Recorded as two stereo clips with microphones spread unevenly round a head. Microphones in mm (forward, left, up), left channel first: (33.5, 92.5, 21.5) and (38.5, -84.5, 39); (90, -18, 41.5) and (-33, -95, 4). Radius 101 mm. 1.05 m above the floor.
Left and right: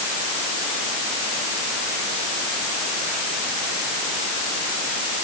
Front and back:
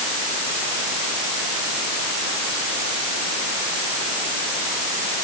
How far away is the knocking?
No knocking in this recording.